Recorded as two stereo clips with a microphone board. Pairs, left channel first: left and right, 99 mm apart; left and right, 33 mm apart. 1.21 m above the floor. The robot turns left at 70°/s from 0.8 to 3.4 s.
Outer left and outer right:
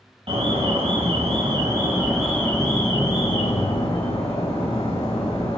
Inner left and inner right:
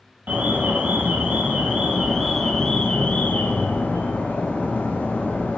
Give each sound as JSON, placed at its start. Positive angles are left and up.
{"t": 0.3, "sound": "an alarm", "azimuth_deg": -80, "distance_m": 2.5}